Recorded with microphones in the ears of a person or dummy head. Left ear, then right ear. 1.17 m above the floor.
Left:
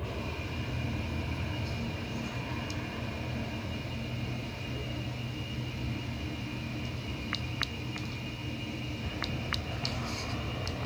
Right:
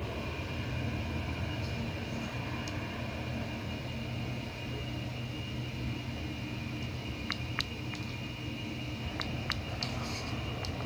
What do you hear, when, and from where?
0.0 s an aircraft: 10° right (ahead or behind); by 10.9 s 10° left (ahead or behind)